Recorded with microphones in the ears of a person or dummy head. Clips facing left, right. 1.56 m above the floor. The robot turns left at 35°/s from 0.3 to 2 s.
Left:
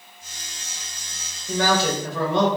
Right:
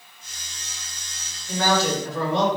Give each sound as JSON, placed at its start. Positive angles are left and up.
{"t": 1.5, "sound": "a man speaking", "side_deg": 70, "distance_m": 1.6}